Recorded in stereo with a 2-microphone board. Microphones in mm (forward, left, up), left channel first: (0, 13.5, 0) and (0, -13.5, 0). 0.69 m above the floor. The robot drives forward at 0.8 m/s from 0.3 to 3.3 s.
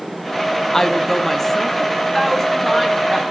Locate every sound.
0.7 s a woman speaking: 10° left (ahead or behind), 0.7 m; by 3.2 s 5° left (ahead or behind), 2.5 m